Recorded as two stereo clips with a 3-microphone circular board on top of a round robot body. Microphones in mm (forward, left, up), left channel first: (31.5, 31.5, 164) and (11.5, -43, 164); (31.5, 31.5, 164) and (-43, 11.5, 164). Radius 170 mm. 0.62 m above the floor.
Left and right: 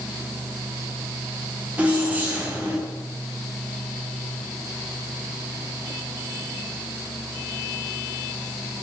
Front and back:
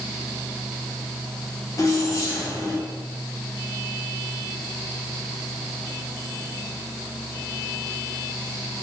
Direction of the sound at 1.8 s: 35° right.